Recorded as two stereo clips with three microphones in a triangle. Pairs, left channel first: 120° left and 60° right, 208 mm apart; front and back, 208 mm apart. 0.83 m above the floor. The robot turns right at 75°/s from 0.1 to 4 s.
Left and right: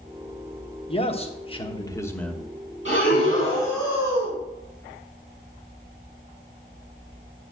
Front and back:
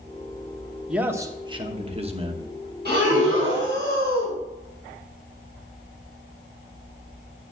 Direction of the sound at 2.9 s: 140° left.